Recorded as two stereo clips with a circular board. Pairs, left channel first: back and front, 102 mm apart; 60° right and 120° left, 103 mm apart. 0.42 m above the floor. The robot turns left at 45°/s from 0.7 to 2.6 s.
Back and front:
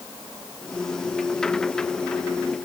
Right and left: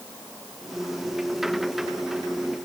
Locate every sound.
Only background noise.